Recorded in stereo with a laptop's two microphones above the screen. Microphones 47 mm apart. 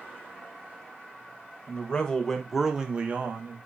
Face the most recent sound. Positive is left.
turn(degrees=-45)  # may be behind; listen again after turning